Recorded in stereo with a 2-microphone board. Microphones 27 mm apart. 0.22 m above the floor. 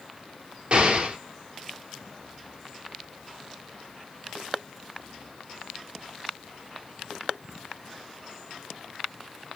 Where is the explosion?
45° right (ahead or behind), 1.2 m.